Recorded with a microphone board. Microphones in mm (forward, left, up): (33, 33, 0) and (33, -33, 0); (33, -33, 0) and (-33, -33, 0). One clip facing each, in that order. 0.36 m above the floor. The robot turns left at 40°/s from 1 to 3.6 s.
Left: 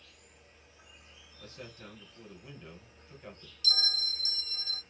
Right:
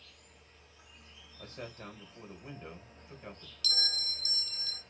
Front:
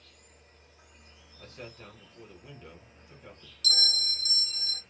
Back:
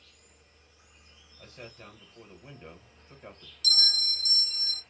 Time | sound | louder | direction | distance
0.0 | an insect | left 1 dB, front 3 dB | 20° left | 1.7 m
1.4 | a man speaking | right 3 dB, front 1 dB | 90° right | 1.1 m
3.6 | a bell | left 3 dB, even | 30° left | 0.8 m